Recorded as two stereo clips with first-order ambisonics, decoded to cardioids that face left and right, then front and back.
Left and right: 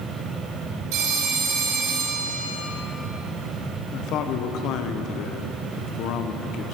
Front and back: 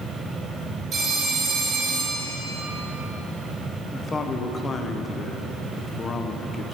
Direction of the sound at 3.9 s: 70° left.